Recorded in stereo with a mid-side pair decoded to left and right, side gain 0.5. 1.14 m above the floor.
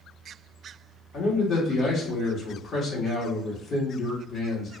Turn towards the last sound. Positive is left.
turn(degrees=50)